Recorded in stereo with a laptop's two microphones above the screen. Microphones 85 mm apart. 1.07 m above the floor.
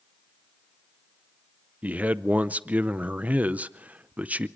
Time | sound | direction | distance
1.8 | a man speaking | 20° right (ahead or behind) | 0.5 m